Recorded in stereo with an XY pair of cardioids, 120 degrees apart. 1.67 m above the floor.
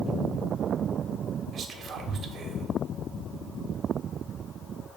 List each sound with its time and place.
1.5 s whispering: 45° right, 0.9 m